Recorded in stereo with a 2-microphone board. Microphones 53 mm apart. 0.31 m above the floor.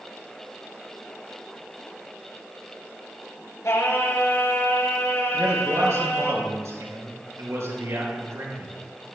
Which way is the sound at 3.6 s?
65° left (ahead or behind).